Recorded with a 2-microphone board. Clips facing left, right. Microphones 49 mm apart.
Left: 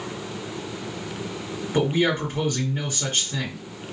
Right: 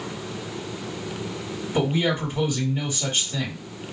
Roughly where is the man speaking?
Left.